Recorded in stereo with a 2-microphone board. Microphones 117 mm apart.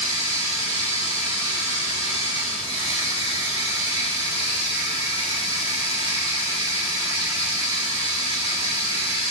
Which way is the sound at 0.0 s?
30° right (ahead or behind).